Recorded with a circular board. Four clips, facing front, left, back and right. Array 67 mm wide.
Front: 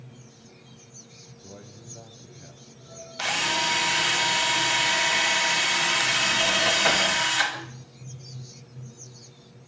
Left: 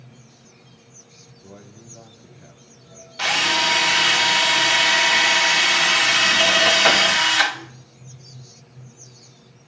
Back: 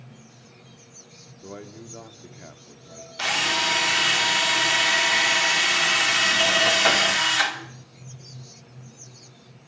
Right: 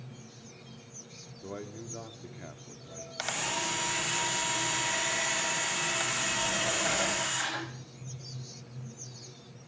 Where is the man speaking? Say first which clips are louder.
Right 4 dB, back 7 dB; 150° right, 2 m.